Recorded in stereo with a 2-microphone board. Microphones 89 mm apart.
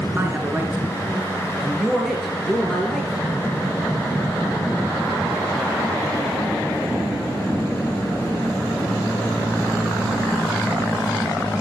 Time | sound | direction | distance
0.2 | a man speaking | 25° right (ahead or behind) | 3 m